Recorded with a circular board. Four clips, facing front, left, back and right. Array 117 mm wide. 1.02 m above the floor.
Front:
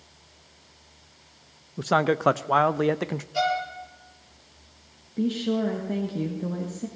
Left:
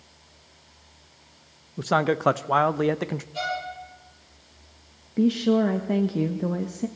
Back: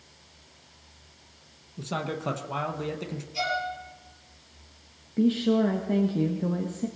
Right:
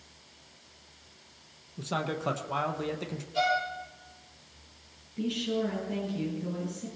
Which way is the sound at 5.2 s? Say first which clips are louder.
Left 10 dB, back 3 dB; 100° left.